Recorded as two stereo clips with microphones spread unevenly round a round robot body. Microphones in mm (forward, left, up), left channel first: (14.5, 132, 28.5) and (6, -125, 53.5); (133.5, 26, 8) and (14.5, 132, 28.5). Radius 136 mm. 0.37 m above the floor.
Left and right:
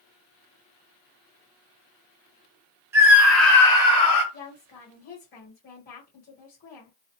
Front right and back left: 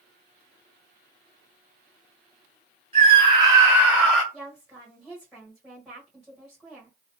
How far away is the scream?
About 1.6 m.